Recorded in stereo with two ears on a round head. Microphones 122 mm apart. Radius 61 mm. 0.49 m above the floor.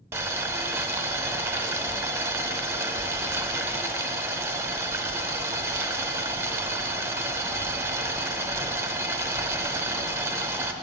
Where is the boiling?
20° right (ahead or behind), 0.5 m.